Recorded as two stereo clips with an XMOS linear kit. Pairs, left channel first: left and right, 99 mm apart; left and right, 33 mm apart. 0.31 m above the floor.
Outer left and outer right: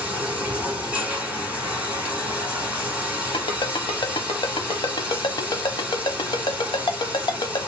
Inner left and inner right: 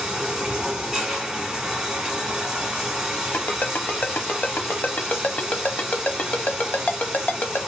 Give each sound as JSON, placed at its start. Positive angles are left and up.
{"t": 0.0, "sound": "running water", "side_deg": -15, "distance_m": 1.5}
{"t": 3.3, "sound": "a ringtone", "side_deg": 65, "distance_m": 0.7}